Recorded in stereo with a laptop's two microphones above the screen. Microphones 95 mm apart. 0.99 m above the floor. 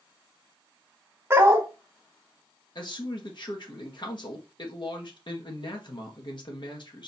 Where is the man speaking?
55° left (ahead or behind), 1.5 m.